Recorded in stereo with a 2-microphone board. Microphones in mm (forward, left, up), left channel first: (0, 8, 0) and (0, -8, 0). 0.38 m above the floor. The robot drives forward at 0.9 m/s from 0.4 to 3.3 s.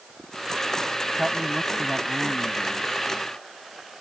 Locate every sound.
1.2 s a man speaking: 30° right (ahead or behind); by 2.9 s 20° right (ahead or behind)